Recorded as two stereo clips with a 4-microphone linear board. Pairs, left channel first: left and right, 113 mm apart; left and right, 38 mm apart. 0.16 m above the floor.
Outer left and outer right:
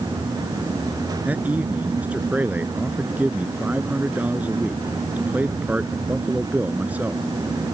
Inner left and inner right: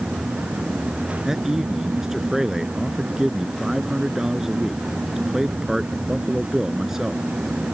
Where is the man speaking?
15° right (ahead or behind).